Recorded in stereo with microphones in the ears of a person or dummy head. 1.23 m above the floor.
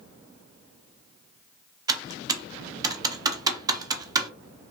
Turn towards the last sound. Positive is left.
turn(degrees=-25)  # may be behind; listen again after turning